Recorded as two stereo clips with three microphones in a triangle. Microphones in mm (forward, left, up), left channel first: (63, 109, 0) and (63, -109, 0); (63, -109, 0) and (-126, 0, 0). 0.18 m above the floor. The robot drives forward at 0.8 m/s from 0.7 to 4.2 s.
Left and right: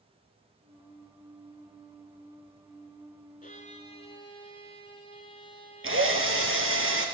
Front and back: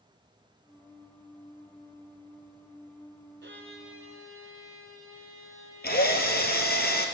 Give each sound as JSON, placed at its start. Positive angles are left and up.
{"t": 3.4, "sound": "a violin", "azimuth_deg": 135, "distance_m": 0.9}
{"t": 5.8, "sound": "a drill", "azimuth_deg": -75, "distance_m": 1.7}